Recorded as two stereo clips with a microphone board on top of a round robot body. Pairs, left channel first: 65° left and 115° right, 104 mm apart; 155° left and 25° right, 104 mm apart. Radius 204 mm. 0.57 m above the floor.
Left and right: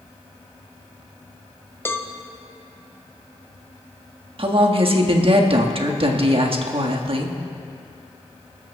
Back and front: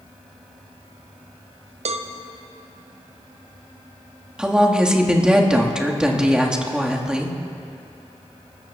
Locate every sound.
1.9 s a cowbell: straight ahead, 0.7 m
4.4 s a woman speaking: 105° right, 1.7 m